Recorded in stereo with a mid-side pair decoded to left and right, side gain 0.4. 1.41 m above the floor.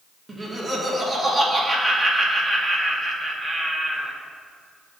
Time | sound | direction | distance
0.3 | laughter | 25° right | 2 m